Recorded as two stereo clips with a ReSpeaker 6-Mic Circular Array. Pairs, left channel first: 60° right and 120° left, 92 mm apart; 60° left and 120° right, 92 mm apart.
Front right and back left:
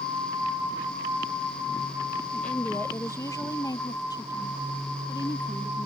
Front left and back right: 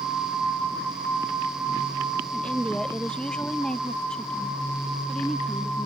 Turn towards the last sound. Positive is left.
turn(degrees=-25)